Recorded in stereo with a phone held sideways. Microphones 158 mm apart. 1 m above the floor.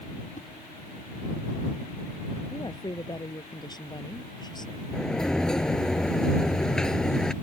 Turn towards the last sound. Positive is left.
turn(degrees=5)  # may be behind; listen again after turning